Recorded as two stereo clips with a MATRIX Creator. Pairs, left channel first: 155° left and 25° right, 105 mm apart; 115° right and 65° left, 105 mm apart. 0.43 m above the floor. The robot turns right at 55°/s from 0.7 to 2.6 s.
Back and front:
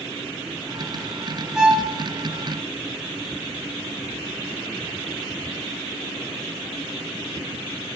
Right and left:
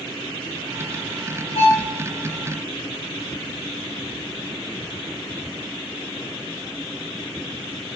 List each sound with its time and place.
1.6 s a violin: 105° right, 3 m; by 1.9 s 85° right, 3 m